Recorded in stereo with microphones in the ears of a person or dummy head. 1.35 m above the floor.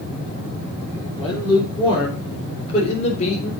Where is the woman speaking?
10° left (ahead or behind), 3.5 m; by 3.5 s 40° left (ahead or behind), 4 m.